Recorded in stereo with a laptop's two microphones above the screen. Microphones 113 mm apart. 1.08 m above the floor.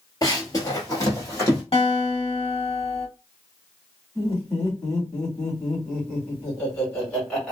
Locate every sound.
0.2 s running footsteps: 35° left (ahead or behind), 1.3 m; by 1.6 s 25° left (ahead or behind), 1.9 m
1.7 s a guitar: 55° left (ahead or behind), 1.3 m
4.2 s laughter: 10° left (ahead or behind), 2.5 m